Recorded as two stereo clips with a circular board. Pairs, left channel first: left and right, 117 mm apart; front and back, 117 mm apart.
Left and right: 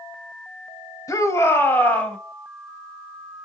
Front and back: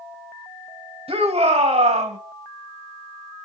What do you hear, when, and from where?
1.1 s a shout: 150° left, 3 m; by 2.2 s 170° left, 3 m